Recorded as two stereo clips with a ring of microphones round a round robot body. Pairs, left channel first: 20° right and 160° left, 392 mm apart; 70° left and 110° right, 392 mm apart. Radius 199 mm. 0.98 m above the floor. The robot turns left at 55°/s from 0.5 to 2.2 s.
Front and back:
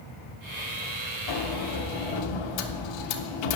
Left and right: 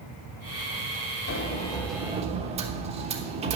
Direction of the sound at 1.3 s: 15° left.